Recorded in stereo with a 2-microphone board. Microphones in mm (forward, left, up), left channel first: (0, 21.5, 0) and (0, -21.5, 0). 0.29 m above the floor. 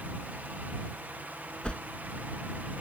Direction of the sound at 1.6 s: 25° left (ahead or behind).